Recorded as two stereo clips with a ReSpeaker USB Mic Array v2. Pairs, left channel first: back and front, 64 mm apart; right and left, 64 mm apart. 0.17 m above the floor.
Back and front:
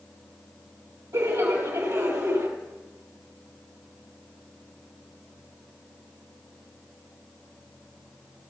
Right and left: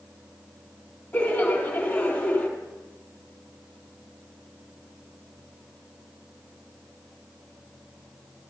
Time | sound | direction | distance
1.1 | laughter | 25° right | 3.5 m